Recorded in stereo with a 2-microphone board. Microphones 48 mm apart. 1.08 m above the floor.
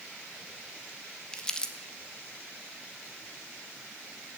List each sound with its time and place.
1.3 s crumpling: 20° left (ahead or behind), 1.2 m